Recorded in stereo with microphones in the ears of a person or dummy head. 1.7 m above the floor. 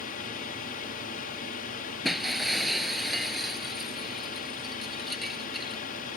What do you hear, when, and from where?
0.0 s a drone: 50° left (ahead or behind)
2.0 s breaking glass: 5° left (ahead or behind)